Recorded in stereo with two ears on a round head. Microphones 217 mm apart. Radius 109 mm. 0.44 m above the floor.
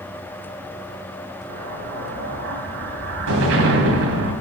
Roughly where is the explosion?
Right.